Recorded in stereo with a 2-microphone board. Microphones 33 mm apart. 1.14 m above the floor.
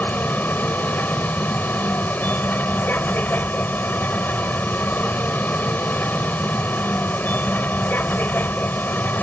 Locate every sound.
0.0 s a vehicle: 80° left